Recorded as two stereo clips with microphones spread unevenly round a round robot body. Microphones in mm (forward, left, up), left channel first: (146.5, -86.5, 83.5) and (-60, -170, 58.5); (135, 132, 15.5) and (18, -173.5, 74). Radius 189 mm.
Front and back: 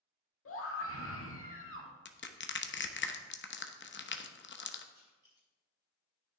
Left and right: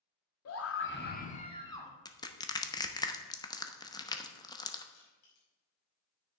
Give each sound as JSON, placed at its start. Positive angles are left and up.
{"t": 0.5, "sound": "a scream", "azimuth_deg": 45, "distance_m": 2.0}
{"t": 2.0, "sound": "crushing", "azimuth_deg": 5, "distance_m": 1.0}
{"t": 4.9, "sound": "crushing", "azimuth_deg": 120, "distance_m": 5.0}